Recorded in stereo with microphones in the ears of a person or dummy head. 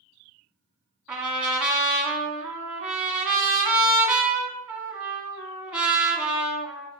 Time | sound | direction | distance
1.1 | a trumpet | centre (ahead or behind) | 0.9 m